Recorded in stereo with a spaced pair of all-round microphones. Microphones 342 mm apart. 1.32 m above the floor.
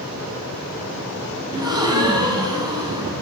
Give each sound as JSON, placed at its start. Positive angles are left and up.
{"t": 1.5, "sound": "a gasp", "side_deg": -10, "distance_m": 9.5}